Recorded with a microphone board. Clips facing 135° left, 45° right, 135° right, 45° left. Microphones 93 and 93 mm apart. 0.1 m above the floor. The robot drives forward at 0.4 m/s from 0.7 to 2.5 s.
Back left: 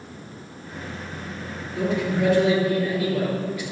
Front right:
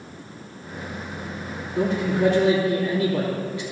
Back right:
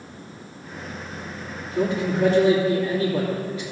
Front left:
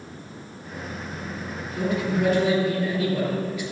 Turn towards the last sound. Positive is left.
turn(degrees=-95)